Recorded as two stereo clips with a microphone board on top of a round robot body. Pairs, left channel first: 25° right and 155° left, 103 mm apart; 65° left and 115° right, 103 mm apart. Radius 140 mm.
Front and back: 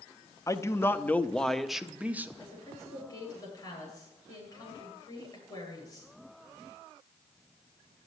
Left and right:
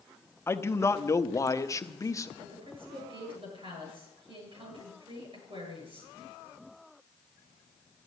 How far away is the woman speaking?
About 9.5 m.